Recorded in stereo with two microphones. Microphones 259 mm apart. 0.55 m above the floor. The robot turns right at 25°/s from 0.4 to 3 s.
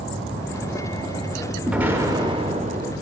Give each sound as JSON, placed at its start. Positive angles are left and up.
{"t": 1.7, "sound": "an explosion", "azimuth_deg": -175, "distance_m": 0.5}